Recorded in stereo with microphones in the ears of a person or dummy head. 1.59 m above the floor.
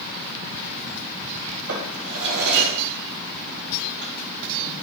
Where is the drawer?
70° right (ahead or behind), 3.5 m.